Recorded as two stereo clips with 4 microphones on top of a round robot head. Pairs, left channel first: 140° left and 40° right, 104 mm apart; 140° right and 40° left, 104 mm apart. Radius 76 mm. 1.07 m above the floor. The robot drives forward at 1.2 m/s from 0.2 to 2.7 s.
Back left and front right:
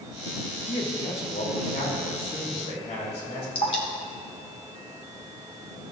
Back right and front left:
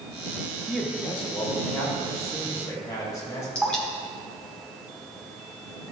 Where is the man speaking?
130° left, 1.6 m; by 3.5 s 160° left, 3.5 m.